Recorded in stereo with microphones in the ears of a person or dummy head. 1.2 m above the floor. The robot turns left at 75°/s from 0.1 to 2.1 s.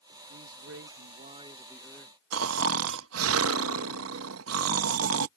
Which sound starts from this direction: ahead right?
A man speaking, at 0.3 s.